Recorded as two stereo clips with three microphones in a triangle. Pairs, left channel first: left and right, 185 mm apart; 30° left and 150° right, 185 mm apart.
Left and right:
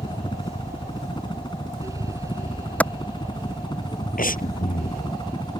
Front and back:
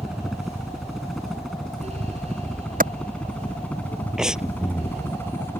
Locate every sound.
0.0 s a helicopter: 125° left; by 5.6 s 85° left
2.8 s a clap: 170° left
4.2 s breathing: 125° left